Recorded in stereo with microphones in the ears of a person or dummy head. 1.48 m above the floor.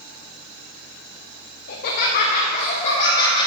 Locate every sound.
1.7 s laughter: 60° left (ahead or behind), 0.7 m; by 3.5 s 30° left (ahead or behind), 1.5 m